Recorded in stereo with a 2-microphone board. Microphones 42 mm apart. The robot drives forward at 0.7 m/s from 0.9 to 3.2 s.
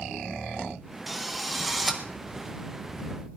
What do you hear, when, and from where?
1.1 s a drill: centre (ahead or behind), 1.1 m